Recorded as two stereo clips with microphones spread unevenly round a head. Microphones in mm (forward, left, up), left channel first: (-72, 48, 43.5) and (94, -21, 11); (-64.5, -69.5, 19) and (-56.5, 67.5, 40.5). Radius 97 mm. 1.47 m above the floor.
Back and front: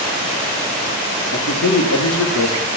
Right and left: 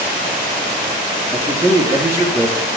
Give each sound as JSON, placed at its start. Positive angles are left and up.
{"t": 1.3, "sound": "a man speaking", "azimuth_deg": 160, "distance_m": 4.5}